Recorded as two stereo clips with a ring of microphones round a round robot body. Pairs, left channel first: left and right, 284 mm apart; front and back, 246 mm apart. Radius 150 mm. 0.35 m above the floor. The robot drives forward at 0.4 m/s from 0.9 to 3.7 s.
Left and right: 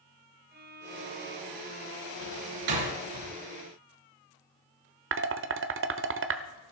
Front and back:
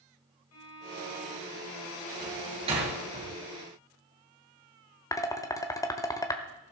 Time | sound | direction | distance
0.5 | a violin | 35° right | 2.0 m
2.2 | a door slam | 105° right | 3.5 m
5.1 | dishes clattering | 75° right | 1.0 m